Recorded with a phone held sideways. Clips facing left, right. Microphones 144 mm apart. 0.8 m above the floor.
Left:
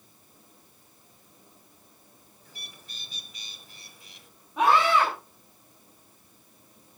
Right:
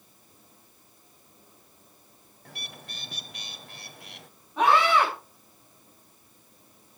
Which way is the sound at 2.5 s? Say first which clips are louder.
Right 7 dB; 65° right (ahead or behind).